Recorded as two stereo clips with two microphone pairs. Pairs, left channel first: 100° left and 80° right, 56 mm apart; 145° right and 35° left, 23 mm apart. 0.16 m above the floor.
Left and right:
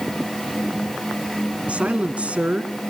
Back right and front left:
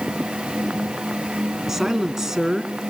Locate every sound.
1.7 s a woman speaking: 30° right, 1.4 m